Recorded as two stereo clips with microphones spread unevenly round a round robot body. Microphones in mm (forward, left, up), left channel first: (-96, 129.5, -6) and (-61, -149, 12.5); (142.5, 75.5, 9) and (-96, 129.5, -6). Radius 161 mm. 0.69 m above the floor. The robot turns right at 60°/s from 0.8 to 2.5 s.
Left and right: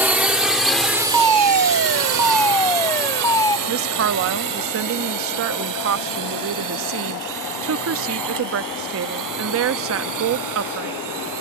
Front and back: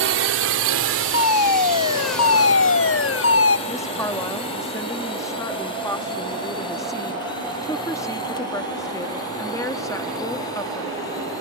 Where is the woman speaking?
90° right.